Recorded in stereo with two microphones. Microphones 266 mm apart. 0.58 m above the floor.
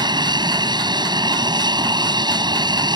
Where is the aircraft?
15° right (ahead or behind).